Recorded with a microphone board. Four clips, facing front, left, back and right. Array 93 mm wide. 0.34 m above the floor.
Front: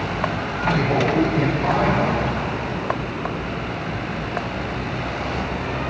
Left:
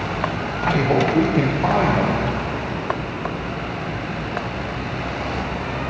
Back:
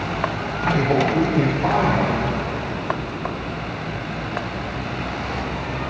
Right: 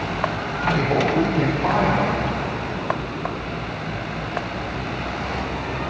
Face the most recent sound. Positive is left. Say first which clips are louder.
# left 2 dB, back 1 dB
turn(degrees=100)